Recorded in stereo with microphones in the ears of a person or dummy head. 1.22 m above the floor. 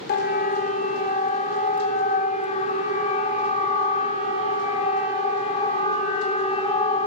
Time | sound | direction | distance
0.1 | a siren | 50° left (ahead or behind) | 2 m